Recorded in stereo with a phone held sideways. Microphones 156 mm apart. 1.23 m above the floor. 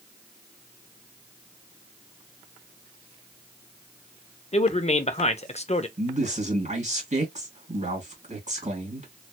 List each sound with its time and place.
4.5 s a man speaking: 45° left (ahead or behind), 0.6 m
6.0 s a man speaking: 50° right (ahead or behind), 1.9 m